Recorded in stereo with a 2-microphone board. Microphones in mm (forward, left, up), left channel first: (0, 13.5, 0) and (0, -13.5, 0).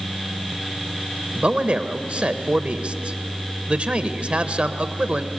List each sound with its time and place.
1.4 s a man speaking: 40° right (ahead or behind), 1.2 m